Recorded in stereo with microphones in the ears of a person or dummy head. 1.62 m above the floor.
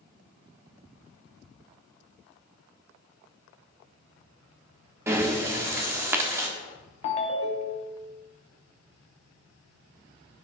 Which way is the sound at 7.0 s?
30° left (ahead or behind).